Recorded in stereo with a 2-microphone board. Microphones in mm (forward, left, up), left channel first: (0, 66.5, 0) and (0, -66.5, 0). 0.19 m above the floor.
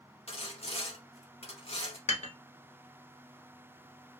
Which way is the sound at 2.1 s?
60° left (ahead or behind).